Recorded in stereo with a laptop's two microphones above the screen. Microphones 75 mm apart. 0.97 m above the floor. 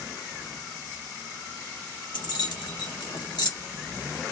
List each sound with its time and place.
2.1 s keys jangling: 80° left, 1.1 m